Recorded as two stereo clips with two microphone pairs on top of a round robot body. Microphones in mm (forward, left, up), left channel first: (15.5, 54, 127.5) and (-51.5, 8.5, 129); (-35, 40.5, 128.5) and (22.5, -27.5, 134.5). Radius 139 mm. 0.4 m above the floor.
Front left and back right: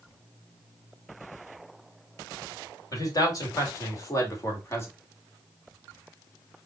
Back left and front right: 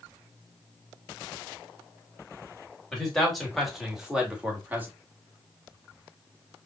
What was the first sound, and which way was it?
A man speaking, 55° left.